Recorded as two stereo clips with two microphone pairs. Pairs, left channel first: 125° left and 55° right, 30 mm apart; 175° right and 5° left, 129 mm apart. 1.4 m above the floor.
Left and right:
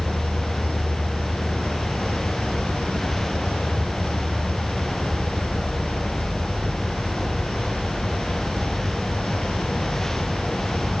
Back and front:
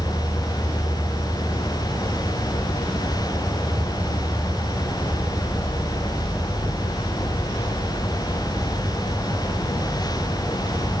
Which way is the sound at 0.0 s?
85° left.